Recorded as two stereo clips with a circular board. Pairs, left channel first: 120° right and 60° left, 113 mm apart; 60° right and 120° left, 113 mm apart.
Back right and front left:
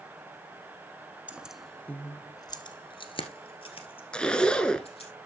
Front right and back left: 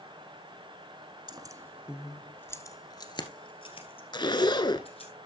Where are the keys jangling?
130° left, 1.2 m; by 5.1 s 85° right, 3.5 m.